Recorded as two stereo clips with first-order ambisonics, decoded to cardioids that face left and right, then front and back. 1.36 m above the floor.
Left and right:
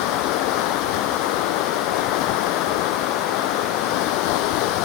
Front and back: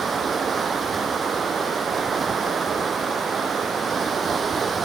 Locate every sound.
0.0 s running water: 110° left